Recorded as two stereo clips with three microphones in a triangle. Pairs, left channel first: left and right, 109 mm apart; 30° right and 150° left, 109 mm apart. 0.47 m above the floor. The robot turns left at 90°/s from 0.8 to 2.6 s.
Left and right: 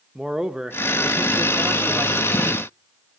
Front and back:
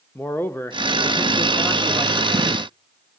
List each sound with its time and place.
0.1 s a man speaking: 15° right, 0.7 m; by 2.7 s straight behind, 0.7 m